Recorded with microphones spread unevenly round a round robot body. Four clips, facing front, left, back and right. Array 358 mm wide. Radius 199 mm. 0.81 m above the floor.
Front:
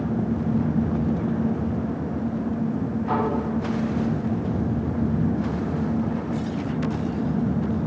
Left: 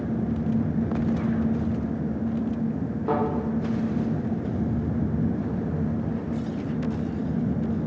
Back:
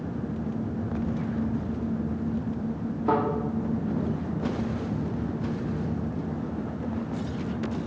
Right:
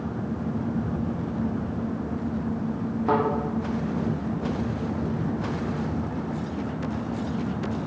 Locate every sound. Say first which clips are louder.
3.0 s a thud: right 3 dB, back 2 dB; 150° left, 6.5 m